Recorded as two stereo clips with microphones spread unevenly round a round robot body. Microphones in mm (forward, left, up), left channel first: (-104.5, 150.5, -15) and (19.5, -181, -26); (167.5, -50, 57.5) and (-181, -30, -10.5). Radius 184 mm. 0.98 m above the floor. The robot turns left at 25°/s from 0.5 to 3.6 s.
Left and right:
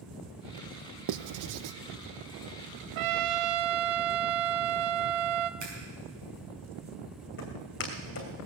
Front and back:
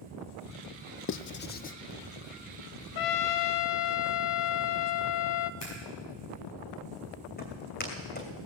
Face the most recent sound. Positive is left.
turn(degrees=55)